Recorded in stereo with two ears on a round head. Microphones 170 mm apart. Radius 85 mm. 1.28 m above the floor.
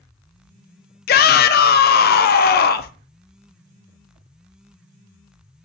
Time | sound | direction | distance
1.1 | a shout | 50° left (ahead or behind) | 0.6 m